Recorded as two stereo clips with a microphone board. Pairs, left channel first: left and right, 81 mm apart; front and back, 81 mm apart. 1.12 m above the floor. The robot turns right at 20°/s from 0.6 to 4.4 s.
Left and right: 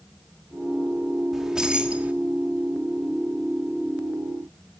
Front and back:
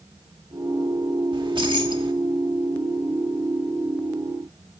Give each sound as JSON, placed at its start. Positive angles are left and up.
{"t": 1.3, "sound": "keys jangling", "azimuth_deg": -175, "distance_m": 1.7}